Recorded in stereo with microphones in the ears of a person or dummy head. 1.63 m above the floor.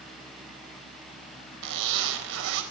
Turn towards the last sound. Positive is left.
turn(degrees=-70)  # may be behind; listen again after turning